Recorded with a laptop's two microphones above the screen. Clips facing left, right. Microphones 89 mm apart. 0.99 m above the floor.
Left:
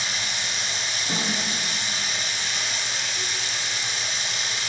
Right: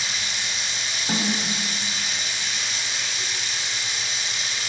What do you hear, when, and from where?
0.0 s running water: 55° left (ahead or behind), 1.3 m
1.1 s a snare drum: 60° right (ahead or behind), 1.5 m